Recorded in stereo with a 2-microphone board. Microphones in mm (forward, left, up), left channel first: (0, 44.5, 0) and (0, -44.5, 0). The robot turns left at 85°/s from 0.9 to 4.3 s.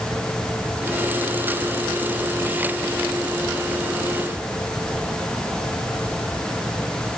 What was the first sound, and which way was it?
Only background noise.